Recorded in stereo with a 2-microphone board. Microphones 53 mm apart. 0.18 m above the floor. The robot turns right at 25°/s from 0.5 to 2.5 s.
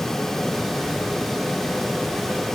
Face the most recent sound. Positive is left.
No sound to turn to.